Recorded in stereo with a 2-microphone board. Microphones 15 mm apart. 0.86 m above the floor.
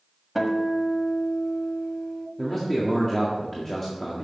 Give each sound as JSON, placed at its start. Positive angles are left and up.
{"t": 0.3, "sound": "a guitar", "side_deg": -5, "distance_m": 1.5}
{"t": 2.4, "sound": "a man speaking", "side_deg": 20, "distance_m": 1.6}